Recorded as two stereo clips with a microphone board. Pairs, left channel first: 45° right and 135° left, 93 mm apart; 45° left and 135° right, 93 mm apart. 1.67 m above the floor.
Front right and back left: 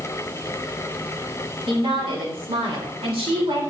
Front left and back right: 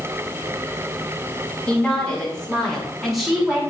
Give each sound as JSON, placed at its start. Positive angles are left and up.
{"t": 1.7, "sound": "a woman speaking", "azimuth_deg": 120, "distance_m": 6.0}